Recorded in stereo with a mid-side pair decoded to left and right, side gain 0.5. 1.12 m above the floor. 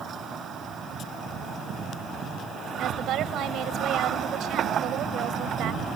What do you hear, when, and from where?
2.8 s a woman speaking: 65° right